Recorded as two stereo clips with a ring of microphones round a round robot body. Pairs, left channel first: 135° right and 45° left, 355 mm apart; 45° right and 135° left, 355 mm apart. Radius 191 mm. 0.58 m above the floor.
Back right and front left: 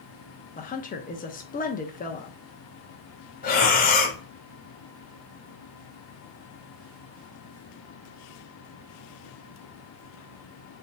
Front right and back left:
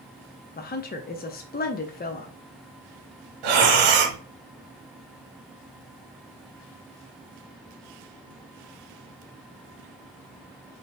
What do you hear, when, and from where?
0.6 s a woman speaking: 90° right, 0.7 m
3.4 s breathing: 160° left, 0.9 m